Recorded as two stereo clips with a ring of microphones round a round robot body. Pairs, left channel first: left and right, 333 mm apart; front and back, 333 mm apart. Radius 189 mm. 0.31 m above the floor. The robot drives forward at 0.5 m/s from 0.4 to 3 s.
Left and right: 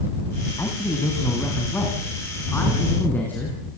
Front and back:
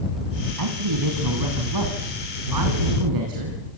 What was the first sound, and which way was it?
A man speaking, 170° left.